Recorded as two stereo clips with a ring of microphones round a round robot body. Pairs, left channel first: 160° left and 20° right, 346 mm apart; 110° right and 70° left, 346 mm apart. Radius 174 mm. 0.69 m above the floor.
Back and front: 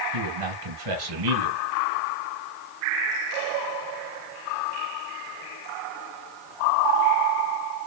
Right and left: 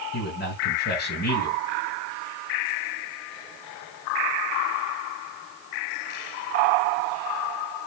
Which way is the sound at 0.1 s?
50° right.